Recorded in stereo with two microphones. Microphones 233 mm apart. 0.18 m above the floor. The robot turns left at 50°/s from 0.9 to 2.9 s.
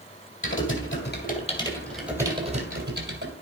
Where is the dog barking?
I don't hear a dog barking.